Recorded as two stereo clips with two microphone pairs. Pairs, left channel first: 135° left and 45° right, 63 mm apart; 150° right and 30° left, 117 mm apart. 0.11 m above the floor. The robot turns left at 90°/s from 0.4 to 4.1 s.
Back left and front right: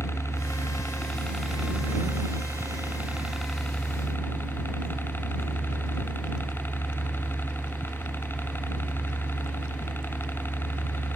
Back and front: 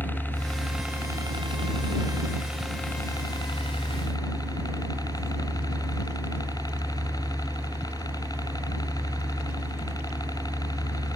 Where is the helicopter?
140° left; by 11.2 s 170° left.